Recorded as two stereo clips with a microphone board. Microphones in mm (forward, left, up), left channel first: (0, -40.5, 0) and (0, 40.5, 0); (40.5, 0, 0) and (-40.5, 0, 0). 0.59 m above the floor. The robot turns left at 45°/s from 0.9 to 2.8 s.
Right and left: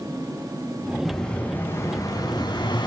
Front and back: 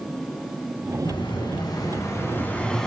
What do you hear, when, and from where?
1.1 s an explosion: 5° right, 6 m; by 2.9 s 85° right, 6 m